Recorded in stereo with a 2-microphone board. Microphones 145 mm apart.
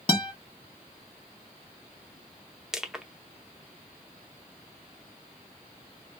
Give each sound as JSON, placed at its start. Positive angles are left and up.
{"t": 0.1, "sound": "a guitar", "side_deg": 35, "distance_m": 0.9}
{"t": 2.7, "sound": "crushing", "side_deg": -5, "distance_m": 0.5}